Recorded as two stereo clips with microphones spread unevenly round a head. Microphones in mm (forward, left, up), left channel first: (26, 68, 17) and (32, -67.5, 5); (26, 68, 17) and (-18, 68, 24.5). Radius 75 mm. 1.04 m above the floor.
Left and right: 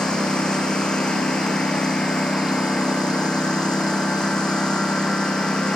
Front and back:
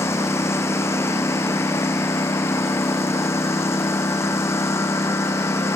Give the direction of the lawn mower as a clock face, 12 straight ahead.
12 o'clock.